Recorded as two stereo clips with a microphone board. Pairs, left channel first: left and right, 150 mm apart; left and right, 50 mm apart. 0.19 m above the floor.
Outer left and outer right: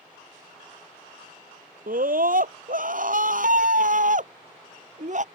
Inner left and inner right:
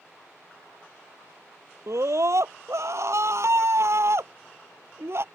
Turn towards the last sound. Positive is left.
turn(degrees=-55)  # may be behind; listen again after turning